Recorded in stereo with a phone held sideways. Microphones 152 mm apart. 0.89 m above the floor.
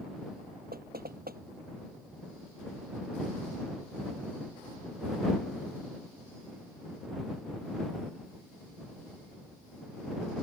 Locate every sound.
0.7 s knocking: 85° right